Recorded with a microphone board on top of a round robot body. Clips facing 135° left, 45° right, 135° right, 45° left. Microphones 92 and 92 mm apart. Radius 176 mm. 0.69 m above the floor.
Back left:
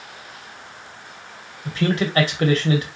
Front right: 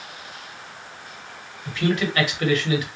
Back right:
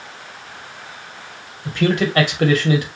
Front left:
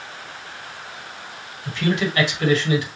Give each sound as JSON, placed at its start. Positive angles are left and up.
{"t": 1.6, "sound": "a man speaking", "azimuth_deg": -170, "distance_m": 2.5}